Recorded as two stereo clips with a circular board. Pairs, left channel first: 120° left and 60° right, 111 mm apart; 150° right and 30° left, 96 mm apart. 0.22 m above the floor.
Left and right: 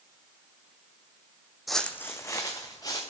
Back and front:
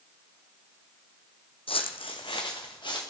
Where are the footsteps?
150° right, 0.6 m; by 3.0 s 175° left, 1.9 m.